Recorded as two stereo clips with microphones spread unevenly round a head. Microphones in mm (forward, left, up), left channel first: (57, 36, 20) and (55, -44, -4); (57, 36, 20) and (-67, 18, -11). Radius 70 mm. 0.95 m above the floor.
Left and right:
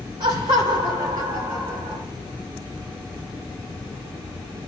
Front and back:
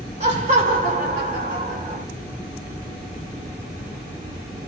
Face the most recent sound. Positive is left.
turn(degrees=-150)